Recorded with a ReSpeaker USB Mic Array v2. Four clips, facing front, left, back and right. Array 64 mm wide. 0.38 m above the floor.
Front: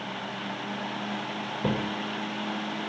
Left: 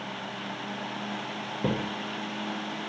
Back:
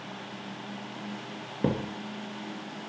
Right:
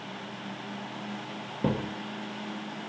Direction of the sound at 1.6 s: 175° right.